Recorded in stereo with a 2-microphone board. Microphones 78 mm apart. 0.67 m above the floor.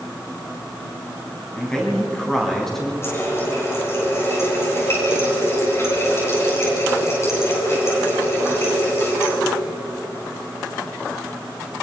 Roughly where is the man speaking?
Centre.